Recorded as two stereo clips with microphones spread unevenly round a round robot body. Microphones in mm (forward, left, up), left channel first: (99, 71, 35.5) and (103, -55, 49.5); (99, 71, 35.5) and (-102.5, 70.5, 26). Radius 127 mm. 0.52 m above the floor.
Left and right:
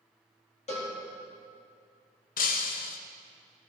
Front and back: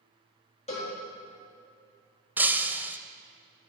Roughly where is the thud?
No thud in this recording.